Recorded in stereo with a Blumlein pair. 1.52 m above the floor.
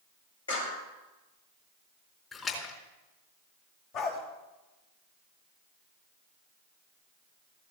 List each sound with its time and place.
0.5 s a clap: 70° left, 5.5 m
2.3 s a splash: 15° left, 3.5 m
3.9 s a dog barking: 35° left, 3 m